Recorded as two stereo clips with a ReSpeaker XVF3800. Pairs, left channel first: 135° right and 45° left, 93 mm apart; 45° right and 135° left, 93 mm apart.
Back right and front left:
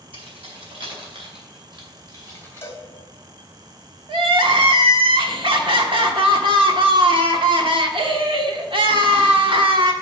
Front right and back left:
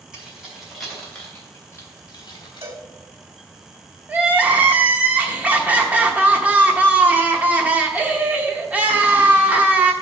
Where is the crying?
60° left, 1.1 m.